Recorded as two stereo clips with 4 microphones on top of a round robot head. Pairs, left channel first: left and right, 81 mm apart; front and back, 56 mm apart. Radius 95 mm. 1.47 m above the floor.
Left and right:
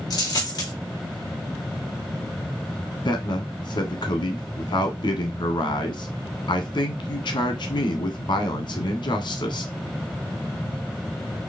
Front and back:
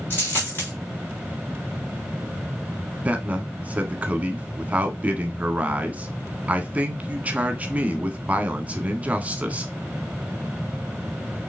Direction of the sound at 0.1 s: 55° left.